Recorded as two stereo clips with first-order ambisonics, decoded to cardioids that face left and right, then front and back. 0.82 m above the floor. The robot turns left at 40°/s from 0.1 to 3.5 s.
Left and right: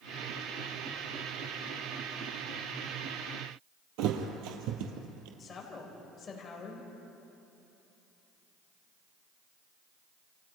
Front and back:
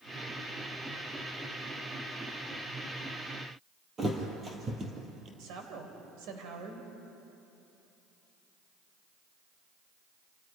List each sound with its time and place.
4.0 s a thud: 110° right, 3 m
5.4 s a woman speaking: 160° left, 4 m